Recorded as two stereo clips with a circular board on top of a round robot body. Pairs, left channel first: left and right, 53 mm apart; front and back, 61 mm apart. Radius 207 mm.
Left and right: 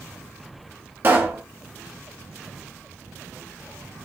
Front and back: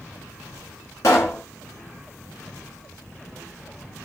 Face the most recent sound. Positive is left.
turn(degrees=-40)